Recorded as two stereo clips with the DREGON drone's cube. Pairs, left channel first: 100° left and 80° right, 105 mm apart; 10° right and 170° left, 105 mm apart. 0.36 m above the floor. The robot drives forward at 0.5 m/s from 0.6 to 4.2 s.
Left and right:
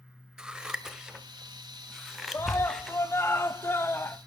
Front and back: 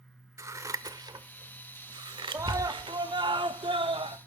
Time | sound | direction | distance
0.4 | scissors | 155° right | 1.1 m
2.3 | a scream | 135° left | 0.9 m